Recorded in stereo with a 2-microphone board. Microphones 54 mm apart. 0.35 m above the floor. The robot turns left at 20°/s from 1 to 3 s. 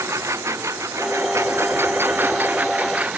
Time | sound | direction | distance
0.0 | a lawn mower | 115° right | ?